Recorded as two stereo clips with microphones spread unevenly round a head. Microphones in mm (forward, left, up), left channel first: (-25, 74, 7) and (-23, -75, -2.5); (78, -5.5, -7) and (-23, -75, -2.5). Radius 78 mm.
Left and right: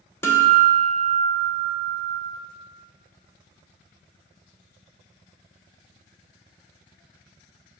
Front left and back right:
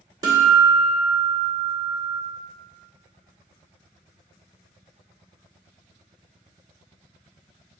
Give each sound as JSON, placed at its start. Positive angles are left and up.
{"t": 0.2, "sound": "a guitar", "azimuth_deg": 160, "distance_m": 0.9}